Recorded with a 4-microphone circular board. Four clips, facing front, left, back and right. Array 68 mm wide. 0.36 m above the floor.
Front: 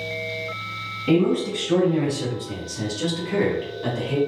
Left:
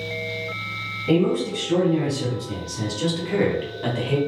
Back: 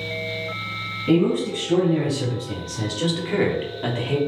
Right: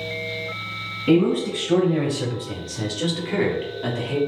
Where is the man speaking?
75° right, 2.0 m; by 4.2 s 150° left, 1.4 m.